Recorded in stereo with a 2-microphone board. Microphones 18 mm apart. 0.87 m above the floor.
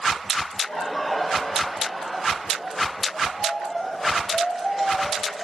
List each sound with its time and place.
0.5 s laughter: 30° left (ahead or behind), 3 m; by 5.4 s 10° right (ahead or behind), 4 m